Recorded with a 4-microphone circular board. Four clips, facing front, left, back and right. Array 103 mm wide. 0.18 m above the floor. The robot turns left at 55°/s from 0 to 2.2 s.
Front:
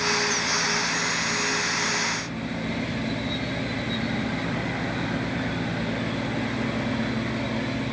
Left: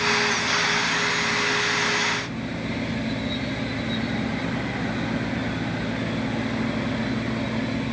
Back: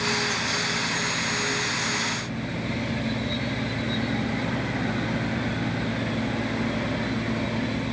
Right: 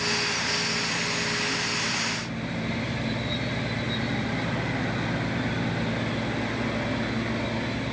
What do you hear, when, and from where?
Only background noise.